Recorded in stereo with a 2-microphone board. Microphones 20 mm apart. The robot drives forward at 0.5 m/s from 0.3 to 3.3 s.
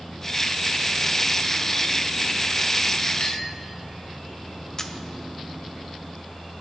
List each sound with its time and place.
3.2 s a clink: 80° left, 3 m
4.8 s a camera shutter: 30° left (ahead or behind), 0.9 m